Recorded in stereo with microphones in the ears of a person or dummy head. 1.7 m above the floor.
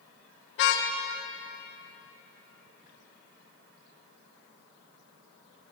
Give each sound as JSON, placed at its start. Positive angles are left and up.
{"t": 0.6, "sound": "a car horn", "side_deg": 65, "distance_m": 2.5}